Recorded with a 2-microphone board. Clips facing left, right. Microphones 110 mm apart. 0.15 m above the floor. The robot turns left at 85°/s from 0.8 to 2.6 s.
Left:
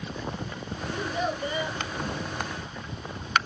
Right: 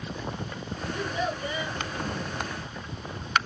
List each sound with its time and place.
0.9 s a child speaking: 100° left, 1.4 m; by 1.8 s 25° left, 1.4 m